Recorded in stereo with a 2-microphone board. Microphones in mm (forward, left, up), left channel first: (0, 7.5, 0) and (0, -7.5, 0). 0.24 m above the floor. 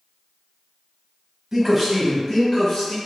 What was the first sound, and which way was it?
A man speaking, 25° right (ahead or behind).